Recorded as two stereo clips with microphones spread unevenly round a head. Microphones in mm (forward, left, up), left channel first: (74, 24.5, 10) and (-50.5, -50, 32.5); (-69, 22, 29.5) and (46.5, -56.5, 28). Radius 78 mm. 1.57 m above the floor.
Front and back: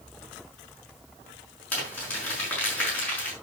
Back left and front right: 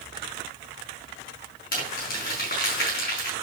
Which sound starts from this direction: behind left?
Crumpling, at 1.7 s.